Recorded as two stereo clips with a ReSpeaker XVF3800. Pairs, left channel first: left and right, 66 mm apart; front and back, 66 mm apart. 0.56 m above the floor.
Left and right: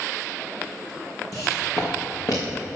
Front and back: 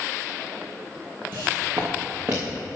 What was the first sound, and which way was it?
Footsteps, 120° left.